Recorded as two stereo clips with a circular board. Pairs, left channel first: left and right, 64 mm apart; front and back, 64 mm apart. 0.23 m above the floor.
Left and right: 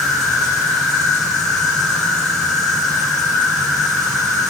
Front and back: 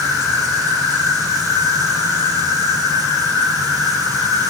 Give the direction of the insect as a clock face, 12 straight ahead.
6 o'clock.